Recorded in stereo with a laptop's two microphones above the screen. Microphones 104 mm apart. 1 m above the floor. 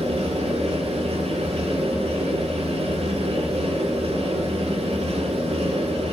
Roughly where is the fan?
Right.